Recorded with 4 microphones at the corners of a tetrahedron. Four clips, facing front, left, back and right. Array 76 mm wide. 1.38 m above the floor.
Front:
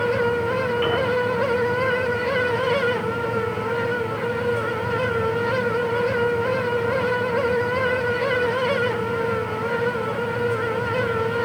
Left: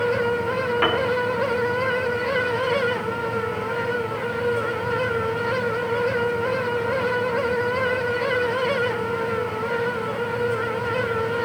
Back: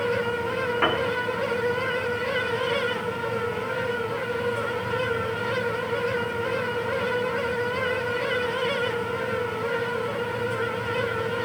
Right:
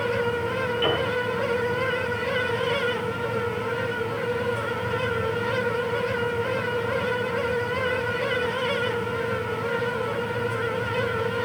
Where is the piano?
120° left, 5 m.